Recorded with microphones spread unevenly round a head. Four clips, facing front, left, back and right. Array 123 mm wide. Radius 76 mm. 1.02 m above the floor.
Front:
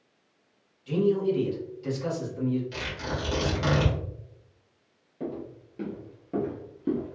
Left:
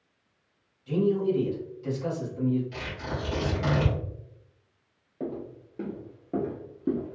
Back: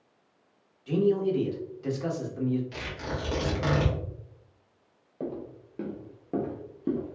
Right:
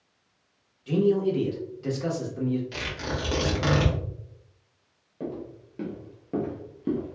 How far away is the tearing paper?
About 1.8 m.